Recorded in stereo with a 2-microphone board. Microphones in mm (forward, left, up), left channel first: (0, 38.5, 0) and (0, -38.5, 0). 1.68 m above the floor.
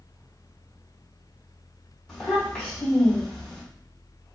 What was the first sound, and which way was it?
A child speaking, 10° left (ahead or behind).